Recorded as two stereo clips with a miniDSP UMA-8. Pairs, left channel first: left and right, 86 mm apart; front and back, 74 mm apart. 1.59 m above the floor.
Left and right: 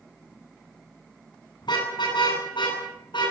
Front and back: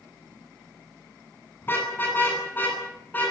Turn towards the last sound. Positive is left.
turn(degrees=65)